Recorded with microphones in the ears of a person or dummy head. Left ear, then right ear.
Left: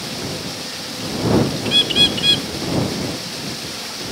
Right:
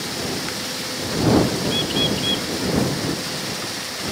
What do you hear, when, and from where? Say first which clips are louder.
1.6 s a bird: left 6 dB; 55° left (ahead or behind)